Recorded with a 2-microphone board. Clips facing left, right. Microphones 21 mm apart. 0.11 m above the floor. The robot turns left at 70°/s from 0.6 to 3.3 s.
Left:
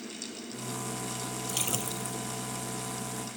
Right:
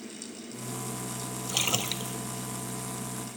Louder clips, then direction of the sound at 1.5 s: Right 6 dB; 25° right.